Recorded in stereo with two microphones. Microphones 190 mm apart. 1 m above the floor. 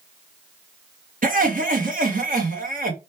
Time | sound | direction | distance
1.2 | laughter | 45° right (ahead or behind) | 0.9 m